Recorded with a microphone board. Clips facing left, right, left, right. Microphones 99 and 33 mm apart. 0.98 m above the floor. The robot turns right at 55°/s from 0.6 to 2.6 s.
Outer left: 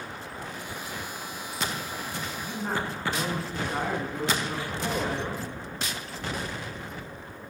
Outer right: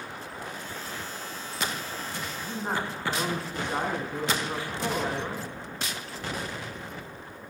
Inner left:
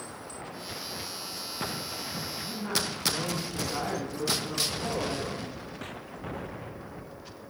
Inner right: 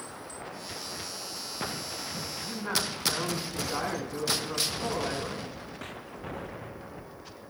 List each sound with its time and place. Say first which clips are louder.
2.4 s a woman speaking: even, inner right 1 dB; 10° right (ahead or behind), 9.5 m; by 5.5 s 20° right (ahead or behind), 9.5 m